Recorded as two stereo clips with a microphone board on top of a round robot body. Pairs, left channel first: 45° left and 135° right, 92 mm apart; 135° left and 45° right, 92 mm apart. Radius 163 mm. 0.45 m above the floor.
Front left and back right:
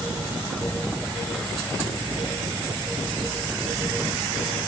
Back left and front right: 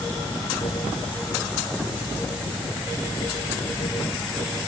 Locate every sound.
Only background noise.